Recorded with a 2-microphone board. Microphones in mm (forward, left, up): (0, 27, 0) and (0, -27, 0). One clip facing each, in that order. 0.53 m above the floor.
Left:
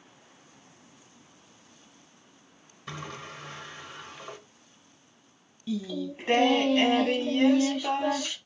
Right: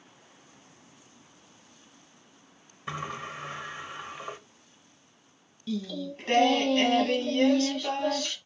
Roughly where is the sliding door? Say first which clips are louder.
Right 4 dB; right.